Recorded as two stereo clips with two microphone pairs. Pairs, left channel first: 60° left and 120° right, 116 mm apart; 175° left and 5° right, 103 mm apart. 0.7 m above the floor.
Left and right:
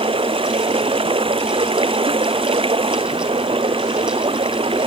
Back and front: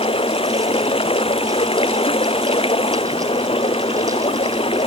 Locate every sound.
0.0 s running water: 155° right